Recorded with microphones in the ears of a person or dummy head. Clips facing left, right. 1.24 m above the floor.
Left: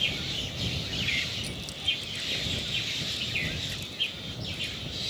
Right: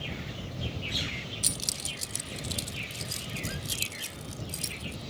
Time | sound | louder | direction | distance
1.4 | keys jangling | left 1 dB | 70° right (ahead or behind) | ?